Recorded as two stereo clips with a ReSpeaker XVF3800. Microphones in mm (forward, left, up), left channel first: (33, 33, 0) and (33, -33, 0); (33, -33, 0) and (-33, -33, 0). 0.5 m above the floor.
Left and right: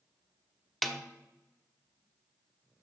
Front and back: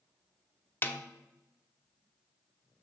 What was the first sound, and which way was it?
A snare drum, 5° left.